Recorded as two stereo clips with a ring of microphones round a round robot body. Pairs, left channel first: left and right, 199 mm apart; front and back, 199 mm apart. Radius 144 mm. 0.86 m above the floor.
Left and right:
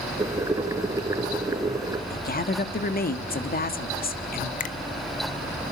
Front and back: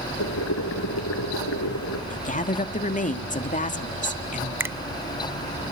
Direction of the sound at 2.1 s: 50° left.